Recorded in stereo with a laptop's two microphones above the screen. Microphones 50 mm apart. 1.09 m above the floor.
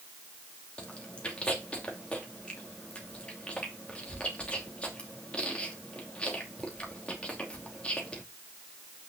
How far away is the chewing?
About 2.5 m.